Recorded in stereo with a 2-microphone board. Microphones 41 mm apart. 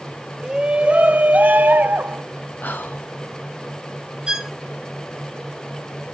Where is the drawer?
I don't hear a drawer.